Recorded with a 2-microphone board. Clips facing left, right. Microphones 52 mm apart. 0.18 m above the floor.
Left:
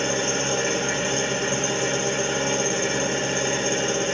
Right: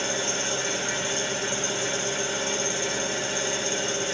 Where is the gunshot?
No gunshot in this recording.